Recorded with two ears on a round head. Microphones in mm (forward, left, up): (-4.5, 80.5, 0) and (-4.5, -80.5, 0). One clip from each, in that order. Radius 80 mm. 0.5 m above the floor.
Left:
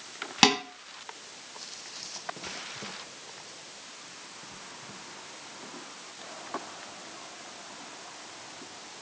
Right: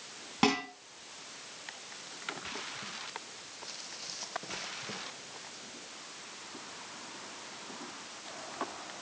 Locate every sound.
0.4 s dishes clattering: 75° left (ahead or behind), 2.5 m